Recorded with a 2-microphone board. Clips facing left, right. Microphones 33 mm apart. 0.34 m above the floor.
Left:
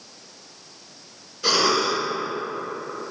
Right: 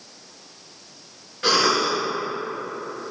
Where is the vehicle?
I don't hear a vehicle.